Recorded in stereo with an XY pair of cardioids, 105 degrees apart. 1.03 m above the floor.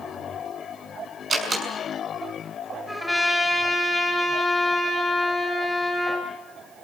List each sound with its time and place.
1.3 s a door slam: 40° right, 6 m
2.9 s a trumpet: 5° left, 6.5 m